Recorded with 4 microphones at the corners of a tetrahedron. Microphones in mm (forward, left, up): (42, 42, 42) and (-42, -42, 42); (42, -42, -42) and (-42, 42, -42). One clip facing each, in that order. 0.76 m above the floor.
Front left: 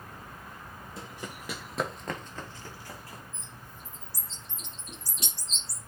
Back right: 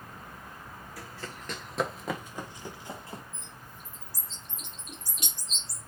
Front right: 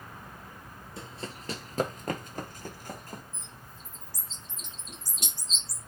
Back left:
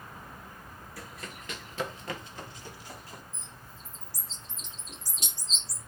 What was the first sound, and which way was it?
Running footsteps, straight ahead.